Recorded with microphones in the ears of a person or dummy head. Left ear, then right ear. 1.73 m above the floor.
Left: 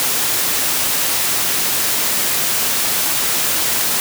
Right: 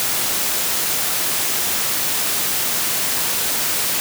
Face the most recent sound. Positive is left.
No sound to turn to.